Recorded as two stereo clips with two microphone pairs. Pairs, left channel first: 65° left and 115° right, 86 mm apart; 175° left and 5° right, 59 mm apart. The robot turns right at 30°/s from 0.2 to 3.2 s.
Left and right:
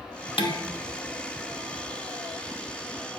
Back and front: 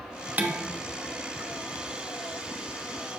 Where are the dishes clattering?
60° left, 1.0 m; by 0.6 s 65° left, 1.0 m.